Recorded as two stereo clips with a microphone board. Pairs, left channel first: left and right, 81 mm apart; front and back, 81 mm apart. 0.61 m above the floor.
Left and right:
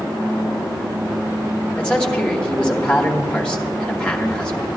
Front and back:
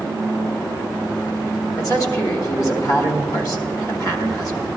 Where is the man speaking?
15° left, 1.2 m.